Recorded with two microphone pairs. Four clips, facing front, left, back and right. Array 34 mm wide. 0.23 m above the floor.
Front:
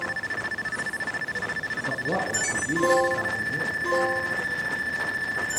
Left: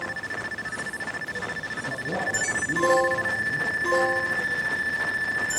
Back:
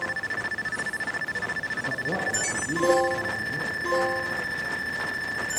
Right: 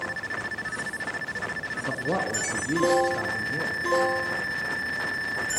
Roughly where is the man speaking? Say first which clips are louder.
Right 1 dB, front 2 dB; ahead right.